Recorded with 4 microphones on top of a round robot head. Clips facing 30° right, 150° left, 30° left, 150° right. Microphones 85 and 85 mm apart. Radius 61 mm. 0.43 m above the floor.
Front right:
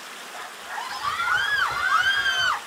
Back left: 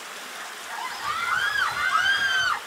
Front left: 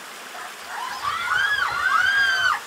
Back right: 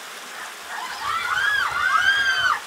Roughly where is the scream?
Ahead.